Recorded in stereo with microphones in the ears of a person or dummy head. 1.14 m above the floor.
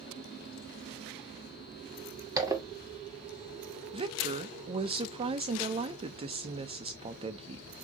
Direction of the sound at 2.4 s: 15° right (ahead or behind).